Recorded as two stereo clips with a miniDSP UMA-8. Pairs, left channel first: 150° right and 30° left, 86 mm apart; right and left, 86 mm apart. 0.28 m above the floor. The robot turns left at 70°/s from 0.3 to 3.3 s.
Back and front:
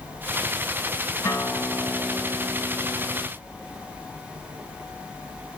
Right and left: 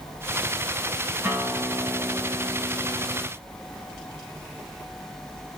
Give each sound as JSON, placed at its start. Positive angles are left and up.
{"t": 1.2, "sound": "a guitar", "azimuth_deg": 165, "distance_m": 2.5}